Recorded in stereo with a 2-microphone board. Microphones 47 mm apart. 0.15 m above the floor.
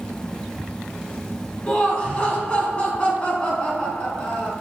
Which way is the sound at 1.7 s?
25° left (ahead or behind).